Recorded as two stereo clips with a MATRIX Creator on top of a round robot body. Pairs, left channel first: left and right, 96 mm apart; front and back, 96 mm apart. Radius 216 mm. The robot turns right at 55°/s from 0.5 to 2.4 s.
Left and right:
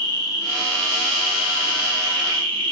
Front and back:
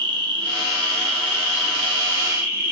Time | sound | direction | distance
0.0 | an insect | 145° left | 0.7 m